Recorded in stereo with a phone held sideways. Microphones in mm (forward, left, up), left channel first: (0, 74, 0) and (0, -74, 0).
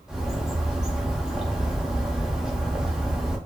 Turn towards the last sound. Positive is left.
turn(degrees=-5)  # may be behind; listen again after turning